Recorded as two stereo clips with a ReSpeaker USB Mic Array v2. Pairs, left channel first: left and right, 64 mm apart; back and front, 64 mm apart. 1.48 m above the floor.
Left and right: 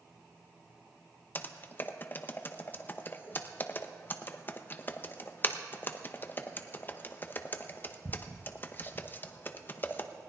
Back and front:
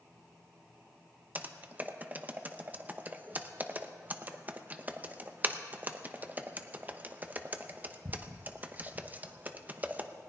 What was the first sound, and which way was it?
Typing on a keyboard, 50° left.